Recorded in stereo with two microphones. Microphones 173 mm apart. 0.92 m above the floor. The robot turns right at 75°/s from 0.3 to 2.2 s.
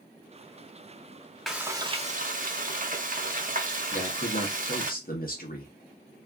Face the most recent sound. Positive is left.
turn(degrees=55)  # may be behind; listen again after turning